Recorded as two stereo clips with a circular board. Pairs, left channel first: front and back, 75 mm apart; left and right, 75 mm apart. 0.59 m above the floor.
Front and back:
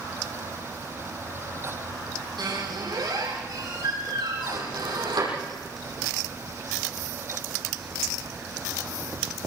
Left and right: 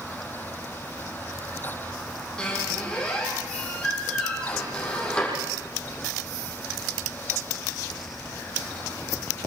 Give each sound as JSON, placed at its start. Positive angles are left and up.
{"t": 2.4, "sound": "a squeak", "azimuth_deg": 165, "distance_m": 9.0}